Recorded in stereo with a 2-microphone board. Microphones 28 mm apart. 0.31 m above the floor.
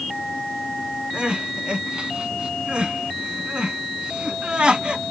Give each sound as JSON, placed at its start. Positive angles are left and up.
{"t": 1.1, "sound": "crying", "side_deg": -30, "distance_m": 2.0}